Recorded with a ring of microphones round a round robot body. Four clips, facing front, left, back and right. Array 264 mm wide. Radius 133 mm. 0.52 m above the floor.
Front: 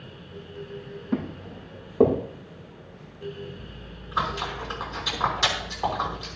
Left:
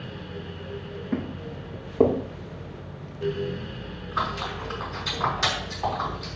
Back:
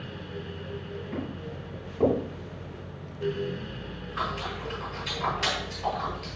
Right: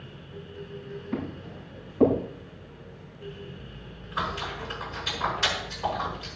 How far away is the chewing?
About 5.5 m.